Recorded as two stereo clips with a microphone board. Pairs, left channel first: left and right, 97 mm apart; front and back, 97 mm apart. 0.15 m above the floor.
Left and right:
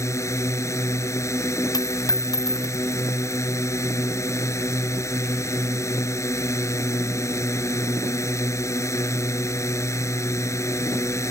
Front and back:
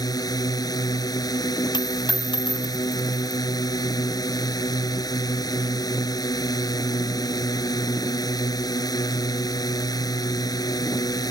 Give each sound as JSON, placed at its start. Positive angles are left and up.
{"t": 0.0, "sound": "a drone", "azimuth_deg": 40}
{"t": 1.7, "sound": "a dropped coin", "azimuth_deg": 40}